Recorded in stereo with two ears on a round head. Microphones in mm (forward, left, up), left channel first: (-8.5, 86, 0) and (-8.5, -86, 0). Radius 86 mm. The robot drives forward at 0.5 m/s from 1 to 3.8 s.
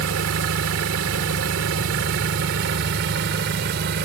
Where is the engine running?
85° right; by 4.1 s 65° right (ahead or behind).